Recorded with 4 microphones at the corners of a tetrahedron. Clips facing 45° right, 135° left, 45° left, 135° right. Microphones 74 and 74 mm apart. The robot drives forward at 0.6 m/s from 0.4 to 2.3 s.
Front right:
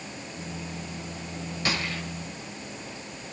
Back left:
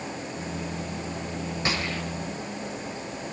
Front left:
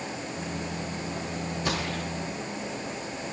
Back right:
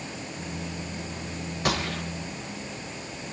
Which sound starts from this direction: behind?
A gunshot, at 1.6 s.